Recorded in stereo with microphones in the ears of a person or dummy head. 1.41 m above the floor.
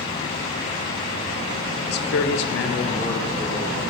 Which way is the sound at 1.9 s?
55° left (ahead or behind).